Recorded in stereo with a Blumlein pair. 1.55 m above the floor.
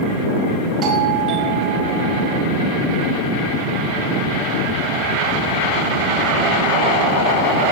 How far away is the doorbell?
About 6.5 m.